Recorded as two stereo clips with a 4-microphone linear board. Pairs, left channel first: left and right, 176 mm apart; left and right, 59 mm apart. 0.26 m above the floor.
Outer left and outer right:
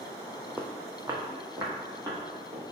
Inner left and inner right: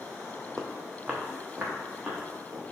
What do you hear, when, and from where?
0.6 s footsteps: 10° right (ahead or behind), 0.6 m; by 2.6 s 20° right (ahead or behind), 2.5 m